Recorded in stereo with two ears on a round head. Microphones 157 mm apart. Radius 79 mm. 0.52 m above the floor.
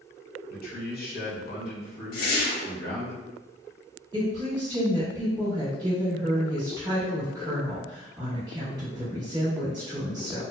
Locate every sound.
0.5 s a man speaking: 45° left (ahead or behind), 1.0 m
2.1 s a whoosh: 50° left (ahead or behind), 0.7 m
4.1 s a woman speaking: 20° right (ahead or behind), 1.1 m